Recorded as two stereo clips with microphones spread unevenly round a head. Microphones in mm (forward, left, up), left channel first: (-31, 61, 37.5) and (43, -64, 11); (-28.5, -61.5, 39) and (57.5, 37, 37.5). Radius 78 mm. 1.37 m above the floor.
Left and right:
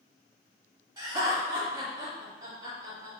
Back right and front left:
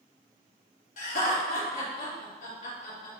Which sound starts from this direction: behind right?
Laughter, at 1.0 s.